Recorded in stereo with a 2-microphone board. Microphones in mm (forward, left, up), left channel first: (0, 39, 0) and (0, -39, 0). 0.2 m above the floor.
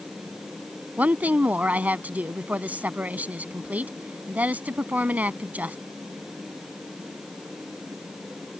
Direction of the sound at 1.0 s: 20° right (ahead or behind).